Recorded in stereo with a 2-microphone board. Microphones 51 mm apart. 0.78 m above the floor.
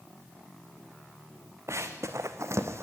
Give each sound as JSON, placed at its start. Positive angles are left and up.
{"t": 1.7, "sound": "running footsteps", "side_deg": -65, "distance_m": 2.5}